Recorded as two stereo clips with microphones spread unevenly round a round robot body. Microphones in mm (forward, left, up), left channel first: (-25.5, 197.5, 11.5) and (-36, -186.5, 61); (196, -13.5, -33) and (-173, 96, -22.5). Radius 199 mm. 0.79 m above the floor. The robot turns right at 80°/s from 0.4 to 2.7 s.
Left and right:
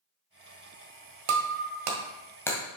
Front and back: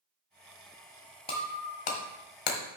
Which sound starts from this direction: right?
Breaking glass, at 1.3 s.